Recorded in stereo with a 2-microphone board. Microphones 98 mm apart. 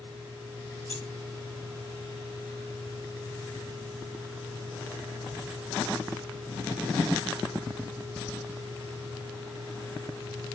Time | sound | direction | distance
0.9 | keys jangling | 75° right (ahead or behind) | 3.5 m